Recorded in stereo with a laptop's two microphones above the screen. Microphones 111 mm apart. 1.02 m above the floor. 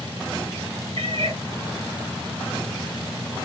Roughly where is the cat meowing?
Right.